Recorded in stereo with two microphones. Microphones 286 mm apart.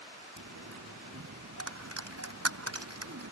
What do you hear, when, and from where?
0.4 s a dropped coin: 60° right (ahead or behind)